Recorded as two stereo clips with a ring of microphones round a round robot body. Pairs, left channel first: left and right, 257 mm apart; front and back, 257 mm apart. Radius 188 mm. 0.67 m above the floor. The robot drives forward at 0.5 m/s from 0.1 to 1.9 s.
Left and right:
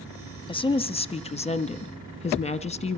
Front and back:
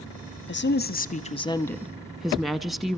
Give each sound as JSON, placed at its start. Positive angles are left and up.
{"t": 0.5, "sound": "a woman speaking", "azimuth_deg": 25, "distance_m": 1.0}